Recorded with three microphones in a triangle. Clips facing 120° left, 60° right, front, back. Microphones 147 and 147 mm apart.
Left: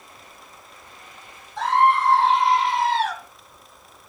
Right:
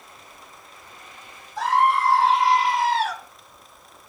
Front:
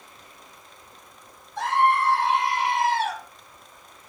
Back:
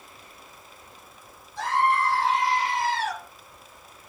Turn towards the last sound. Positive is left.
turn(degrees=25)